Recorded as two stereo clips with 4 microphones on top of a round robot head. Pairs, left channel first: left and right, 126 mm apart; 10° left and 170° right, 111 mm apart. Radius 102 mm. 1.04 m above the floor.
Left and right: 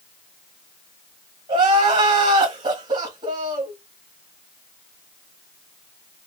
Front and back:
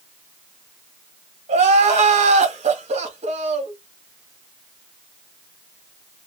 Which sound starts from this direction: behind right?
Crying, at 1.5 s.